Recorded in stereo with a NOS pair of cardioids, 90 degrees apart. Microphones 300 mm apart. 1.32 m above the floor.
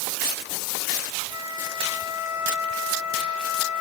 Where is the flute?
70° left, 5.5 m.